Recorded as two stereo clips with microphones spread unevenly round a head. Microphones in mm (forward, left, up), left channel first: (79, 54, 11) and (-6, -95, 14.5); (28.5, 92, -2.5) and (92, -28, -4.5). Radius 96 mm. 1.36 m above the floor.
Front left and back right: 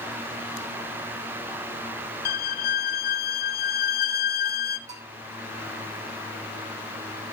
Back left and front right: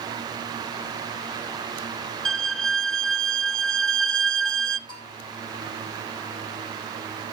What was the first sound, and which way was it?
A violin, 30° left.